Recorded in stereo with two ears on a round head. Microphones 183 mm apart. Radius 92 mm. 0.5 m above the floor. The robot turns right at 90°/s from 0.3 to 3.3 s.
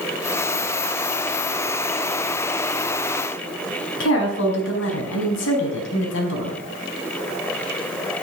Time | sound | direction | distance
4.0 | a woman speaking | 70° left (ahead or behind) | 5 m